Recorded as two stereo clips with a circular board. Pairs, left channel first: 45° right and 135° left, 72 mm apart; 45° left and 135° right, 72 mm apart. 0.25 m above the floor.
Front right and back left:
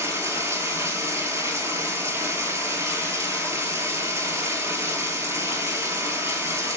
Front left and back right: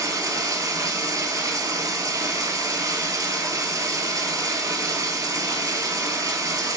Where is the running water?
175° right, 0.8 m.